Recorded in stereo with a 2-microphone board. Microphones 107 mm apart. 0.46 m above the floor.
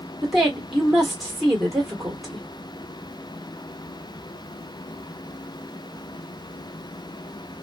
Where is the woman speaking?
Centre (ahead or behind), 1.5 m.